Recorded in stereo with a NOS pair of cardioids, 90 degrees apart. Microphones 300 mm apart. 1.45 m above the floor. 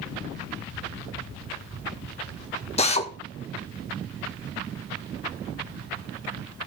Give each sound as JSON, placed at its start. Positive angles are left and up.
{"t": 2.8, "sound": "a drill", "azimuth_deg": 20, "distance_m": 2.0}